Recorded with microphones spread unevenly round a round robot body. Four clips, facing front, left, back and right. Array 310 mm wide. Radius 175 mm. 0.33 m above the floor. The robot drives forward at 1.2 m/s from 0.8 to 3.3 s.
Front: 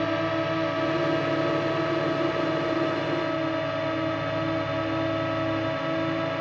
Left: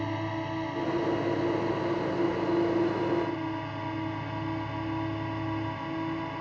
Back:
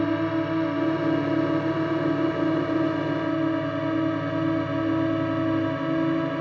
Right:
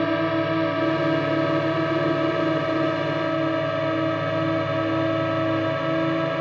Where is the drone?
100° right; by 6.4 s 115° right.